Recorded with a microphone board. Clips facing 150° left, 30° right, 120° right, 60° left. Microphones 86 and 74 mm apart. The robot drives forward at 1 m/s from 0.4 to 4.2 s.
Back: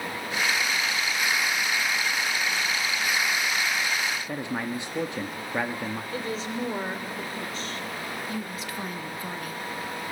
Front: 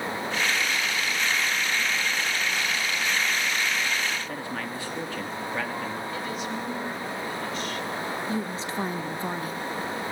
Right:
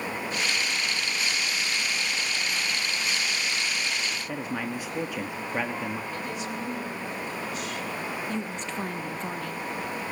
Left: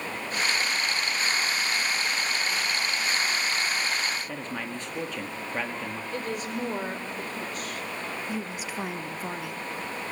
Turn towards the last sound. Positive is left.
turn(degrees=-10)